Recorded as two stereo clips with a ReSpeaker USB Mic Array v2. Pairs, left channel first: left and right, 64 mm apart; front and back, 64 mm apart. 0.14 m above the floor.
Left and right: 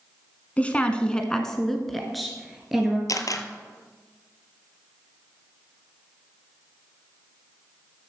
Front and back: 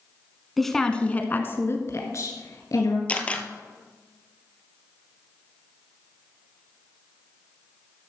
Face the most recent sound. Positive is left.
turn(degrees=70)